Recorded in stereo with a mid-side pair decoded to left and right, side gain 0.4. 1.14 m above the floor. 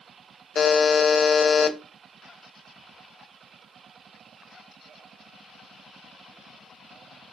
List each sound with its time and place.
0.6 s a buzzer: 50° left, 0.5 m